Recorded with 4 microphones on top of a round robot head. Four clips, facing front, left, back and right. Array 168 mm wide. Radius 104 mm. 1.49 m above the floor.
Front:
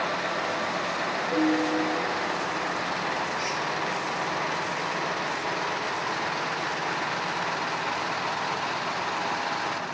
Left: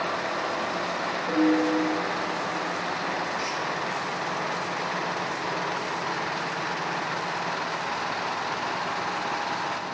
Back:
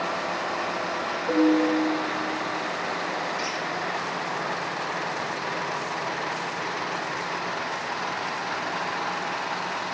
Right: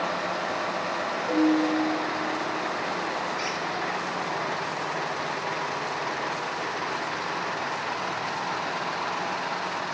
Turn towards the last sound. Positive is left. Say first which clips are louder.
# even, even
turn(degrees=-105)